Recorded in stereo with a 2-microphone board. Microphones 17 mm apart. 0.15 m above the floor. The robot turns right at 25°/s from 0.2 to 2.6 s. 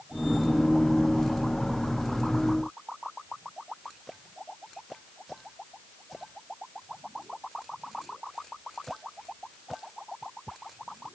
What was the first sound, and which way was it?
Only background noise.